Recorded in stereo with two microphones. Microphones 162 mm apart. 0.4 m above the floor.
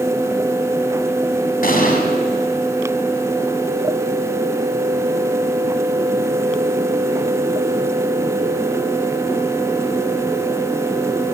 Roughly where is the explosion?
Left.